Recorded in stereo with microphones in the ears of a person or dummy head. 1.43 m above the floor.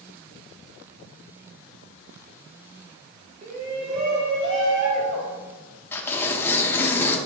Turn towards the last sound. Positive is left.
turn(degrees=10)  # may be behind; listen again after turning